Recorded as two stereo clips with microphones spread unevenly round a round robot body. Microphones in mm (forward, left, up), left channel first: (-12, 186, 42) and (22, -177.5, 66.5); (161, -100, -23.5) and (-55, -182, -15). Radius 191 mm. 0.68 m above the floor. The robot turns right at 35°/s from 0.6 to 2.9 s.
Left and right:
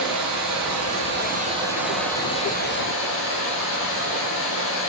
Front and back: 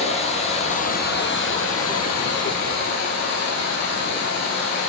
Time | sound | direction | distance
0.0 | running water | 40° right | 5 m